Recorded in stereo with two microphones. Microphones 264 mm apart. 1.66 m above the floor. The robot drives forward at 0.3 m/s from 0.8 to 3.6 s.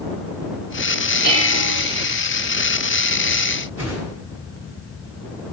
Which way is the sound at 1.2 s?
75° right (ahead or behind).